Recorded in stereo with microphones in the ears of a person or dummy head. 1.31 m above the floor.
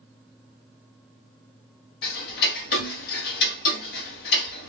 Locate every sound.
2.0 s ticking: 60° left (ahead or behind), 1.0 m